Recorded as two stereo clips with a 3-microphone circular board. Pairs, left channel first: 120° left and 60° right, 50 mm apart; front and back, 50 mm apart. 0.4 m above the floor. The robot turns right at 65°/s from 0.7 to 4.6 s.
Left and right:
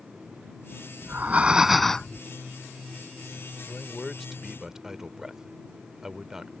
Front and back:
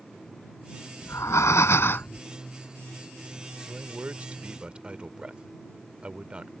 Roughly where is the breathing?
Ahead.